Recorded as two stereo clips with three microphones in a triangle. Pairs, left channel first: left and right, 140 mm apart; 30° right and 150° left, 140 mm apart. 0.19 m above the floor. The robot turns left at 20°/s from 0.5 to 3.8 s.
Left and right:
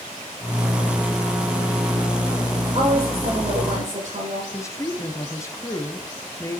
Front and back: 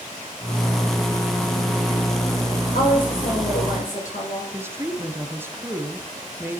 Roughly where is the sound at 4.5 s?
Left.